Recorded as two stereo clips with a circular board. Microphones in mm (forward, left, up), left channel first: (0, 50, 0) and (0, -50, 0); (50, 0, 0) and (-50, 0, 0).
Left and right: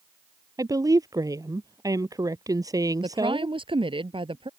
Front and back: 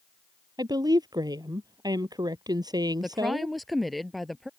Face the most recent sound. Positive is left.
turn(degrees=-90)